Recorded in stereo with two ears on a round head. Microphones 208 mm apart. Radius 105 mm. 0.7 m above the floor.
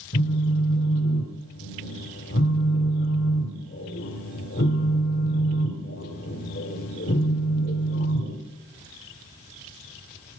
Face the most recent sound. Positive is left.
turn(degrees=40)  # may be behind; listen again after turning